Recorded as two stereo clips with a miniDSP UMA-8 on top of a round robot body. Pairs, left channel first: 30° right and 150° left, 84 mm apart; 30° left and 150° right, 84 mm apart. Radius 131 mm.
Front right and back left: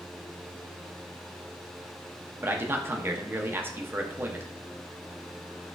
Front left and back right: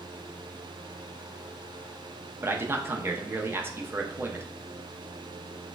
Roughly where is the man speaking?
Behind.